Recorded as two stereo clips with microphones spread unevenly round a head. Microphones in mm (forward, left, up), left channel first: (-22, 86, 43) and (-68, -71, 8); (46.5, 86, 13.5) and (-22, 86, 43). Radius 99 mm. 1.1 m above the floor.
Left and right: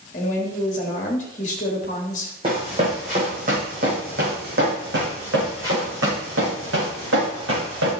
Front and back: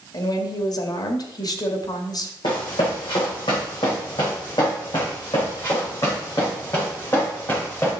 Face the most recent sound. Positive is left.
turn(degrees=-85)